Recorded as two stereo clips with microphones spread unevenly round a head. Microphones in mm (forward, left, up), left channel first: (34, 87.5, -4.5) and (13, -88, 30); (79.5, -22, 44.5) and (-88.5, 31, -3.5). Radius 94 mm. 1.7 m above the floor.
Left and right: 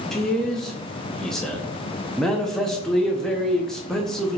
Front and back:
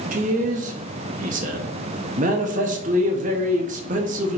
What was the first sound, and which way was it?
A man speaking, 170° right.